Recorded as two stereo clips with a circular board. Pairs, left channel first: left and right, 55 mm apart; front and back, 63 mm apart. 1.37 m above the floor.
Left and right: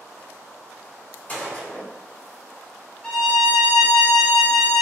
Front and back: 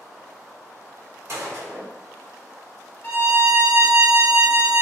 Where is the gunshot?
150° left, 1.4 m.